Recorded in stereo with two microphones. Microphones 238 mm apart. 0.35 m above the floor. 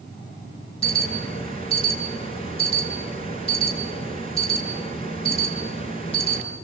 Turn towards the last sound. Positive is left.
turn(degrees=25)  # may be behind; listen again after turning